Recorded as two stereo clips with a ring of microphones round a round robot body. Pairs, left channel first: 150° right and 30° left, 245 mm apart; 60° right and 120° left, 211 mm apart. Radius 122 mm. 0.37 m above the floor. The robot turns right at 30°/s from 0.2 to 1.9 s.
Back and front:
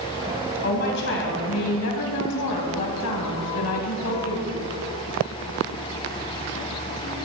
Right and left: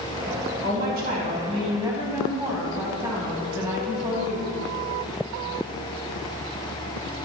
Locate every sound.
0.6 s a woman speaking: 160° left, 2.5 m; by 4.5 s 160° right, 2.5 m